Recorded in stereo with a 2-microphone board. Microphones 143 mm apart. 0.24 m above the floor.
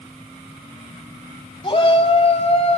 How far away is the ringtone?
No ringtone in this recording.